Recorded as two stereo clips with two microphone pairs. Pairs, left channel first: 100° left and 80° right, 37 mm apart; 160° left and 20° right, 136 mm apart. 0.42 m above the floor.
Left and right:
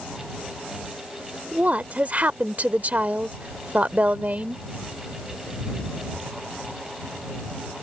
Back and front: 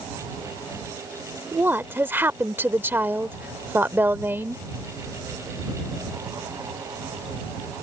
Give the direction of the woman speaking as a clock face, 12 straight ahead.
3 o'clock.